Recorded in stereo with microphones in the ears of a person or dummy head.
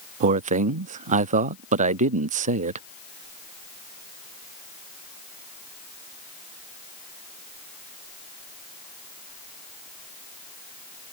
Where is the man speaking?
40° right (ahead or behind).